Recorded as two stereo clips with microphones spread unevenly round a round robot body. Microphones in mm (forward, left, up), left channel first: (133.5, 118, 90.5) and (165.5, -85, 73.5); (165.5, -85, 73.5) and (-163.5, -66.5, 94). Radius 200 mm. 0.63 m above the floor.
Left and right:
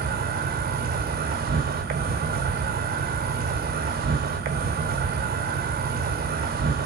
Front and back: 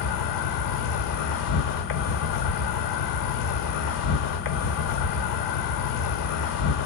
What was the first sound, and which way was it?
An insect, 35° right.